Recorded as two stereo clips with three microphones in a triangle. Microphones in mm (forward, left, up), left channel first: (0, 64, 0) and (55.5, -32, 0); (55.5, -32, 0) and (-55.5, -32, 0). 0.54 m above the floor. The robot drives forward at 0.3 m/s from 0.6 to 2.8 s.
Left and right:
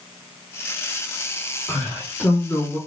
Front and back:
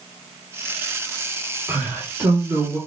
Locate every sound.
1.7 s a man speaking: 140° left, 1.3 m; by 2.8 s 155° left, 1.5 m